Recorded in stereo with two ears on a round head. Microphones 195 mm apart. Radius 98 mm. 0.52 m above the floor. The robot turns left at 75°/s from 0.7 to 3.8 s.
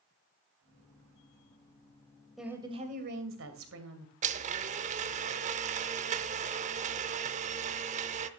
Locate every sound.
2.4 s a woman speaking: straight ahead, 2.5 m; by 4.1 s 110° right, 2.5 m
4.2 s a blender: 35° right (ahead or behind), 0.6 m